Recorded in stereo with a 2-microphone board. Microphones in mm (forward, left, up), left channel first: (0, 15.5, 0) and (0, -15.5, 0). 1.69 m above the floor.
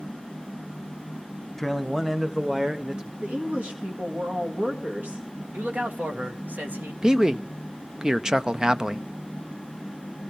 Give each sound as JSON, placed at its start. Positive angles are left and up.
{"t": 1.6, "sound": "a man speaking", "side_deg": 5, "distance_m": 1.4}
{"t": 3.2, "sound": "a woman speaking", "side_deg": -70, "distance_m": 2.0}
{"t": 5.5, "sound": "a man speaking", "side_deg": -65, "distance_m": 2.0}
{"t": 7.0, "sound": "a man speaking", "side_deg": -20, "distance_m": 0.7}